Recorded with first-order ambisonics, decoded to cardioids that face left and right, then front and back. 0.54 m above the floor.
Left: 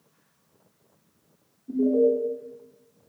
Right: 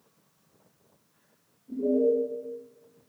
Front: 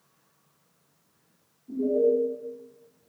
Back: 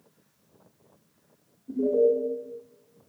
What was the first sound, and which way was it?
An alarm, 125° left.